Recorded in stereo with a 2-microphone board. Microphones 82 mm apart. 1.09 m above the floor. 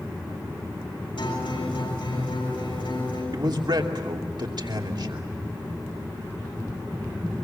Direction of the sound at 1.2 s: 80° left.